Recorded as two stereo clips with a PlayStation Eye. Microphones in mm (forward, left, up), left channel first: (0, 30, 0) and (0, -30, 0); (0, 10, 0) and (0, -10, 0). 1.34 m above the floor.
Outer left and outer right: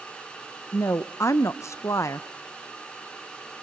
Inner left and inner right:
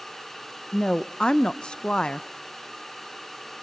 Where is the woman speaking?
55° left (ahead or behind), 0.7 m.